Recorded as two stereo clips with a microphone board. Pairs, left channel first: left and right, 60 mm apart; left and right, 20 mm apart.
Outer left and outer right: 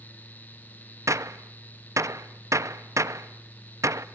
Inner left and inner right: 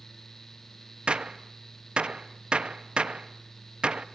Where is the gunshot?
55° right (ahead or behind), 0.8 m.